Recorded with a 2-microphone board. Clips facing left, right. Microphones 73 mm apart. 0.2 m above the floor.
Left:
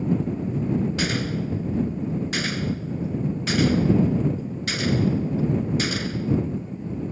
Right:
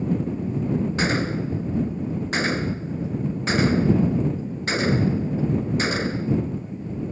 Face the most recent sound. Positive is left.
turn(degrees=-30)  # may be behind; listen again after turning